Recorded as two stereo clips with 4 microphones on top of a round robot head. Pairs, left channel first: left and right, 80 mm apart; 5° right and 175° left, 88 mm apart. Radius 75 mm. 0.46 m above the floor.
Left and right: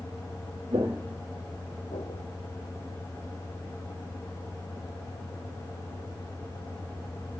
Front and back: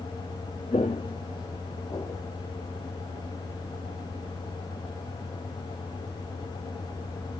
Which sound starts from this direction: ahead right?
Footsteps, at 0.7 s.